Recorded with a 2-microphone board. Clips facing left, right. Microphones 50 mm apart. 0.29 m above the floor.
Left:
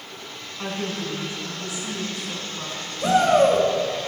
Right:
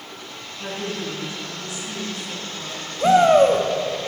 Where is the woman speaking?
25° left (ahead or behind), 2.5 m.